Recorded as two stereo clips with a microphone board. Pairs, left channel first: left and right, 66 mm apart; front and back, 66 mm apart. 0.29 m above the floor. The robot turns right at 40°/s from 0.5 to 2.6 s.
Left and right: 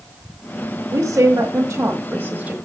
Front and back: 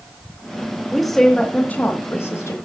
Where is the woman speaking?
90° right, 1.2 m; by 2.6 s 25° right, 1.2 m.